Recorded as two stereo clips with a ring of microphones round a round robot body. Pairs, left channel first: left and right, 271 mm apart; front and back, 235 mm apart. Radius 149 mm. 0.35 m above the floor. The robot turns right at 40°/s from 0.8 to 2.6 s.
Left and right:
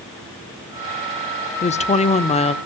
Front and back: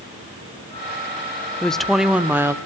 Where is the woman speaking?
80° left, 1.0 m; by 2.5 s 120° left, 1.0 m.